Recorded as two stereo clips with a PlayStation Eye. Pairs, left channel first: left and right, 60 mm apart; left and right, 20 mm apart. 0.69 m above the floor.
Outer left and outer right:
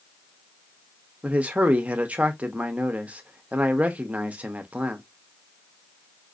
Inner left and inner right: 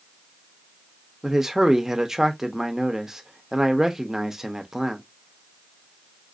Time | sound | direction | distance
1.2 | a man speaking | 25° right (ahead or behind) | 0.8 m